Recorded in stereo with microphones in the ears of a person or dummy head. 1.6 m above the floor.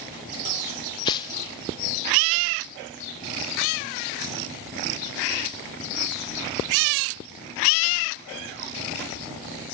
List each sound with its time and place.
1.1 s tearing paper: 25° left (ahead or behind), 1.3 m